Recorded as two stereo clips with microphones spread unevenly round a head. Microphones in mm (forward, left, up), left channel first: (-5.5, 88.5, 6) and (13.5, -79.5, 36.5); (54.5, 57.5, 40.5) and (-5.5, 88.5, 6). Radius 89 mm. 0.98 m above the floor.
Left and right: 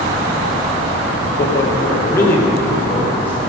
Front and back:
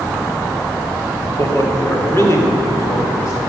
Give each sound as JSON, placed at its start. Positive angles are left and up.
{"t": 1.4, "sound": "a man speaking", "azimuth_deg": 25, "distance_m": 2.5}